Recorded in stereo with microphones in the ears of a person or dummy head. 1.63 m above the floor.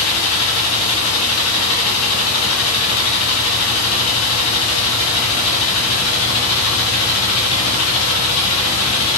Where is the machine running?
80° left, 0.7 m.